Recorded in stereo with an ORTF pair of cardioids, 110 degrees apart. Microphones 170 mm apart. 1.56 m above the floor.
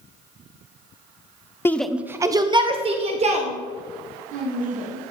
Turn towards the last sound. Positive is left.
turn(degrees=-50)